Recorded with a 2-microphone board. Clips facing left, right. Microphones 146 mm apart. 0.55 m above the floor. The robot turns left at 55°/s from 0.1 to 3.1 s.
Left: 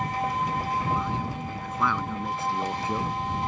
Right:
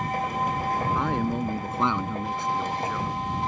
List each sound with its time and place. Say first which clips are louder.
0.9 s a man speaking: right 4 dB; 105° right; by 3.1 s 135° left